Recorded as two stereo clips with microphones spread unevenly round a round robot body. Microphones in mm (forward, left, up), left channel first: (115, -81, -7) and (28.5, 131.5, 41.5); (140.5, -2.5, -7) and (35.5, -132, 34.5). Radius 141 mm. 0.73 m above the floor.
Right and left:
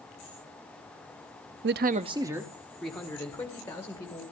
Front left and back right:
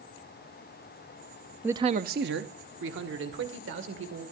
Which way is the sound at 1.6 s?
130° left.